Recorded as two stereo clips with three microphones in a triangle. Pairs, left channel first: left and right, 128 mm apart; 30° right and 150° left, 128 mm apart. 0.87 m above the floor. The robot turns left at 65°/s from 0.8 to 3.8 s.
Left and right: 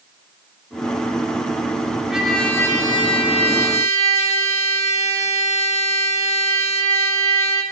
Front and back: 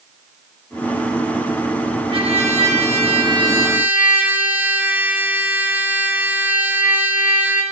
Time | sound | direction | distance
2.1 | a trumpet | 170° right | 1.1 m